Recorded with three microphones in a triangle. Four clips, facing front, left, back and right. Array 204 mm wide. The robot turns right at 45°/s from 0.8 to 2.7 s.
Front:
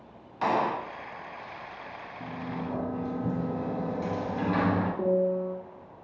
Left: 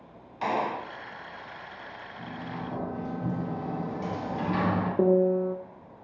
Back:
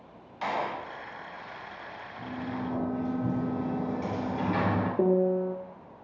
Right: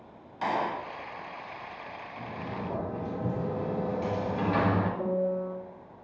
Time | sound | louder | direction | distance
0.4 | a gunshot | left 1 dB, front 5 dB | 5° left | 0.5 m
2.2 | a sliding door | even, back 1 dB | 105° right | 4 m
5.0 | a piano | left 7 dB, back 3 dB | 120° left | 0.6 m